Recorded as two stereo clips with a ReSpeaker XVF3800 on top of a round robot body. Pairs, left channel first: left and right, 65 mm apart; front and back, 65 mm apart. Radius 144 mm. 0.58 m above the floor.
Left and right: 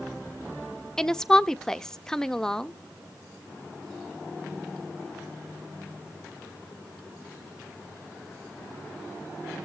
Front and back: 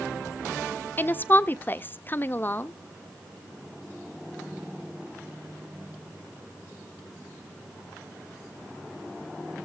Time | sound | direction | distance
1.0 | a woman speaking | 15° left | 0.6 m